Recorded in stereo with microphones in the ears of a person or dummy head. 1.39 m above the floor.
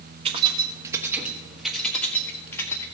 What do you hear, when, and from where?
0.2 s keys jangling: 25° right (ahead or behind), 1.2 m; by 2.9 s 20° left (ahead or behind), 1.8 m